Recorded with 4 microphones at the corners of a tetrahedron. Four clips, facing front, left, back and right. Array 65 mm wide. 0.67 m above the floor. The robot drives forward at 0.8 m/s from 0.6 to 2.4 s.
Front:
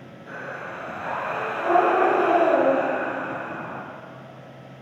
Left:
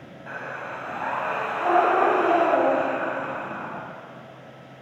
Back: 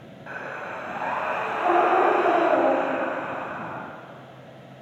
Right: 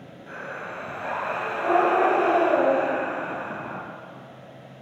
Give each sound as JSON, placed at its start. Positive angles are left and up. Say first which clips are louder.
{"t": 0.3, "sound": "breathing", "louder": "left 2 dB, back 1 dB", "azimuth_deg": 145, "distance_m": 4.0}